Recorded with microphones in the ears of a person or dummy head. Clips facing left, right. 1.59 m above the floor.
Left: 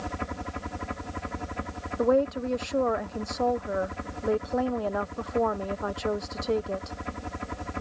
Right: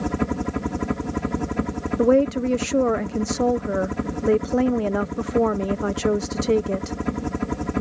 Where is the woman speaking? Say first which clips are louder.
Right 6 dB; 40° right (ahead or behind).